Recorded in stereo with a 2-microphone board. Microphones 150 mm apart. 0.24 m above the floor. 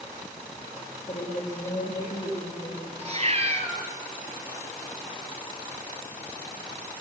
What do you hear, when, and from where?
1.1 s a woman speaking: 25° left (ahead or behind), 8 m; by 2.9 s 15° left (ahead or behind), 6.5 m
3.0 s a cat meowing: 45° right (ahead or behind), 3 m